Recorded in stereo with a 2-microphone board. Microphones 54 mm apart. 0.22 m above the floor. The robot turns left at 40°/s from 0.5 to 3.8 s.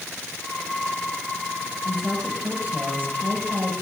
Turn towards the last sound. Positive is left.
turn(degrees=-80)